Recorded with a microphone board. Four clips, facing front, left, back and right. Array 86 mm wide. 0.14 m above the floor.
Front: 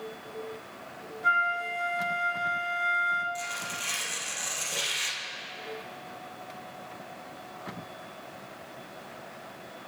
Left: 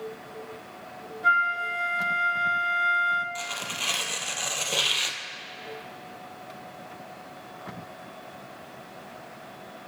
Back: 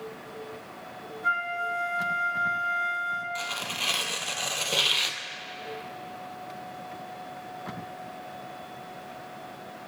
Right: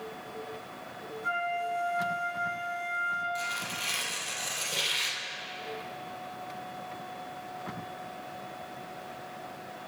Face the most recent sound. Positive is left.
turn(degrees=140)